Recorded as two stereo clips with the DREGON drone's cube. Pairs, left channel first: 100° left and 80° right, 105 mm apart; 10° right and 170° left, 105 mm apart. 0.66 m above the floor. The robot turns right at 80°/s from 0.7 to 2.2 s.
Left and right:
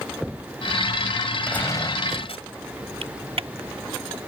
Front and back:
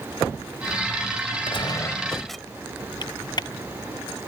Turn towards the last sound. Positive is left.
turn(degrees=-60)